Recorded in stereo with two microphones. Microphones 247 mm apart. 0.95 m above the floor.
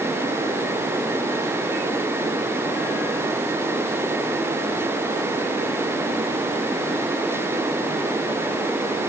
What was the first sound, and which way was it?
Only background noise.